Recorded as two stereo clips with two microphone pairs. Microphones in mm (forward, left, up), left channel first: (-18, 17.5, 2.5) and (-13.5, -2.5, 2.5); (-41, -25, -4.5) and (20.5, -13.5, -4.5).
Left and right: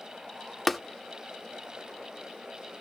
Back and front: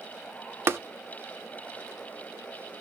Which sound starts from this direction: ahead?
Tapping, at 0.7 s.